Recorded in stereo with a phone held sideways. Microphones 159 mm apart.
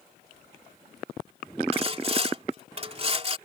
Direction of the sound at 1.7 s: 35° right (ahead or behind).